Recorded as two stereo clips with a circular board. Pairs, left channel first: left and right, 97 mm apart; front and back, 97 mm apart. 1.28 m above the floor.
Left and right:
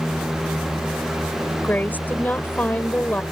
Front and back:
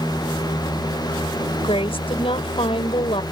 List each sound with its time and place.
1.6 s a woman speaking: 20° left